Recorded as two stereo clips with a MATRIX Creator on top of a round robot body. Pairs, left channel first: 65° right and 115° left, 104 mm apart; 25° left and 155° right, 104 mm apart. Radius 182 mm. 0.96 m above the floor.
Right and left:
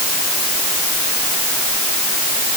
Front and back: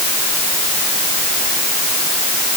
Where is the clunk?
I don't hear a clunk.